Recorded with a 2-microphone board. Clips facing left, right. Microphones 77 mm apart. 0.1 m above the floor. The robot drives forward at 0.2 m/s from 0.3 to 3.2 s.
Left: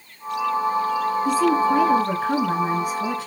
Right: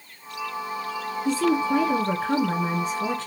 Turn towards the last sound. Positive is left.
turn(degrees=5)  # may be behind; listen again after turning